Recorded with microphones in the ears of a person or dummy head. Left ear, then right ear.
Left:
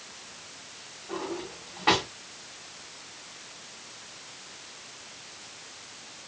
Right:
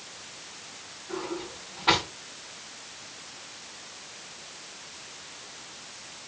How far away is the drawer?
About 1.5 m.